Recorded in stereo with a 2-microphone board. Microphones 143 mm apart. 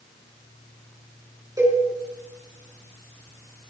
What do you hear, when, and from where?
1.6 s a cowbell: 25° right (ahead or behind), 5 m